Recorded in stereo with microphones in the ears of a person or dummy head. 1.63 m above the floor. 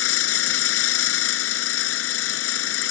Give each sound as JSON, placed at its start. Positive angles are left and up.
{"t": 0.0, "sound": "an engine running", "side_deg": 85}